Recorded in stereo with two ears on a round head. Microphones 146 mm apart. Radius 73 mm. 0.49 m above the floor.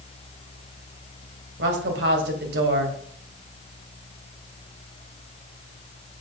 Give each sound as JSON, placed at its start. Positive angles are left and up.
{"t": 1.6, "sound": "a woman speaking", "side_deg": -70, "distance_m": 2.0}